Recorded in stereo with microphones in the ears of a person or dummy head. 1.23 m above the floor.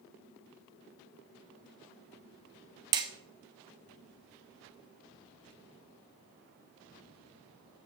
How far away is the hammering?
About 0.8 m.